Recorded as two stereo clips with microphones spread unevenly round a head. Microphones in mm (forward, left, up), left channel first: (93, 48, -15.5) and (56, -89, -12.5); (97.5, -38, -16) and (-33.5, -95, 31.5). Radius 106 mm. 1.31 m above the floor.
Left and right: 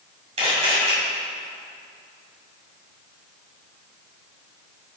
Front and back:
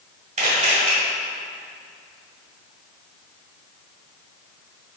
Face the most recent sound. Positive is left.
turn(degrees=-155)